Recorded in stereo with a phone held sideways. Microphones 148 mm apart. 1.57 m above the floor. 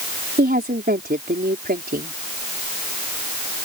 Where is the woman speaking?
85° right.